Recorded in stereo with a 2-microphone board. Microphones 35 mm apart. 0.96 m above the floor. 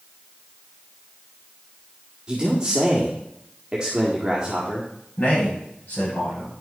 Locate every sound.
2.3 s a man speaking: 20° right (ahead or behind), 1.7 m
5.2 s a man speaking: 40° left (ahead or behind), 6 m